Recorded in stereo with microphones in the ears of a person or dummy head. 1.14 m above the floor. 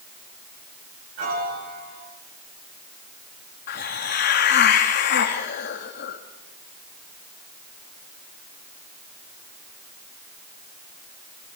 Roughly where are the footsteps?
I don't hear footsteps.